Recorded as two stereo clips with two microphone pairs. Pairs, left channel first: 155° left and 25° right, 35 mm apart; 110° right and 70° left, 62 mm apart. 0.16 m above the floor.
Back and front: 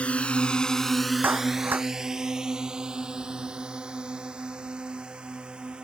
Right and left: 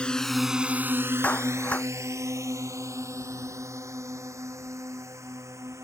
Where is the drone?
175° right; by 5.8 s 35° left.